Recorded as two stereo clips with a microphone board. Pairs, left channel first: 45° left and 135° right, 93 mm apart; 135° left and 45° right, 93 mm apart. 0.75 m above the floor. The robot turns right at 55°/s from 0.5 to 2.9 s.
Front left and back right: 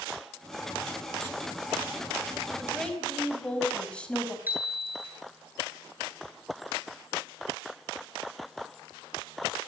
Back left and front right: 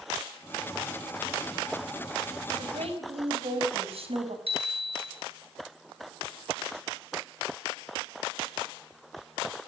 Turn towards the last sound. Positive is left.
turn(degrees=-65)